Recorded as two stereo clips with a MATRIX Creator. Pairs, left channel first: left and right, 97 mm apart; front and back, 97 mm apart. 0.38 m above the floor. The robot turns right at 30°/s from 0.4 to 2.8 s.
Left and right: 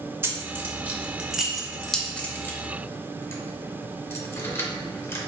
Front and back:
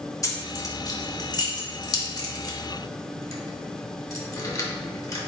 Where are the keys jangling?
40° right, 0.6 m; by 5.3 s 35° left, 0.6 m.